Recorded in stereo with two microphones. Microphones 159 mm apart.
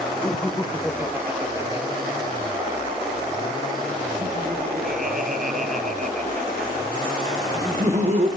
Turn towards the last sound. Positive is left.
turn(degrees=-45)  # may be behind; listen again after turning